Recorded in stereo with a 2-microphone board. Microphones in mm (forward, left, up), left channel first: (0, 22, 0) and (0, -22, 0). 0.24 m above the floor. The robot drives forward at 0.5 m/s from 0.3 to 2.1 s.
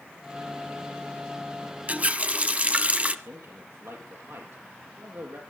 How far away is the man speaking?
About 6 m.